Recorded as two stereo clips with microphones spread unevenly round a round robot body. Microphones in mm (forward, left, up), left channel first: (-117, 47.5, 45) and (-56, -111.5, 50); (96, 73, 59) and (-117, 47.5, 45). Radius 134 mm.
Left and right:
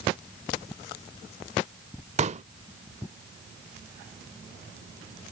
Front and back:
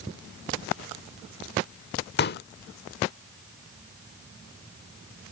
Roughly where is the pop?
Ahead right.